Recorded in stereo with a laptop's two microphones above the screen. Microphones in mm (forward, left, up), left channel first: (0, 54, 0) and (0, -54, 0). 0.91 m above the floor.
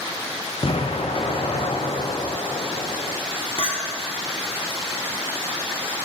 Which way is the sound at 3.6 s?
55° left (ahead or behind).